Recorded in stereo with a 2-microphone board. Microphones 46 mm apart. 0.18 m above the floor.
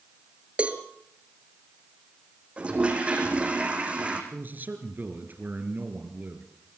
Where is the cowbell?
25° right (ahead or behind), 2.5 m.